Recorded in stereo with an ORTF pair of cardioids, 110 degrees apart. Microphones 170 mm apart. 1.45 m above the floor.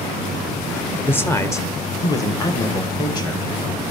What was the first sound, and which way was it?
A man speaking, 10° left.